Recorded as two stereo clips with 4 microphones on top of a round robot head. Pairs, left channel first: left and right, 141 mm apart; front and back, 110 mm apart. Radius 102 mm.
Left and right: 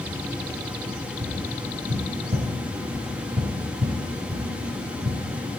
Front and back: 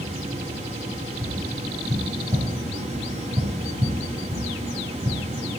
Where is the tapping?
125° right, 3.5 m.